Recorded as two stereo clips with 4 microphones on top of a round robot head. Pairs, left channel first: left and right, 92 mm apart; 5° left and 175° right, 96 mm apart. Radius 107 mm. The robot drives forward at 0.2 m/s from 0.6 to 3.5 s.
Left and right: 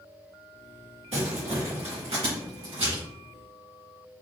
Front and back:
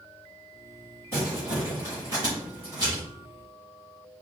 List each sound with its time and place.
1.1 s crumpling: 105° right, 2 m; by 3.0 s 115° right, 2 m